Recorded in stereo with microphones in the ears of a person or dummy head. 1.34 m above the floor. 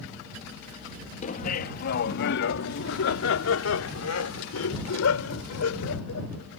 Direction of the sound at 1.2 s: 40° left (ahead or behind).